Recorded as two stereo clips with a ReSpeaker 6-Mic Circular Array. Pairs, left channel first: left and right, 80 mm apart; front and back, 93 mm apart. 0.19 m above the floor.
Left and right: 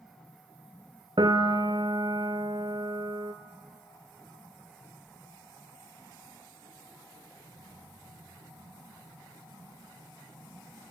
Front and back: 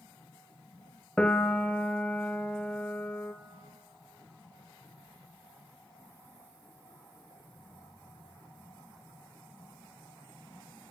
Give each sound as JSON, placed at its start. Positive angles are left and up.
{"t": 1.2, "sound": "a piano", "azimuth_deg": -80, "distance_m": 1.3}